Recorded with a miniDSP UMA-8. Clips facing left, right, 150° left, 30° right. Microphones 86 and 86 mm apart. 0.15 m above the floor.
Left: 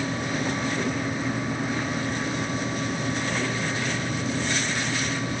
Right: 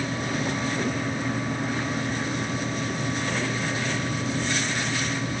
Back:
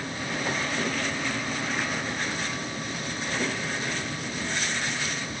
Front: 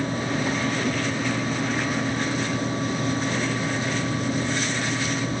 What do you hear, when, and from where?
Only background noise.